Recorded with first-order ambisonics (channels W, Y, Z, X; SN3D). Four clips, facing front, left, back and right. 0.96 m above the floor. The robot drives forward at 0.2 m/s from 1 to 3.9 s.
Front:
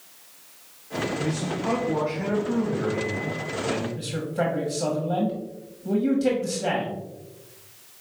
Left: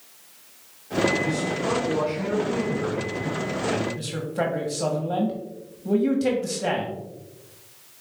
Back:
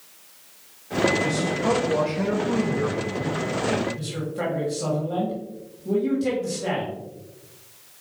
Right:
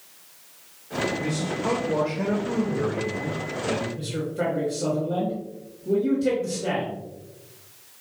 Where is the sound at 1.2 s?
150° right, 1.2 m; by 3.9 s 160° right, 1.7 m.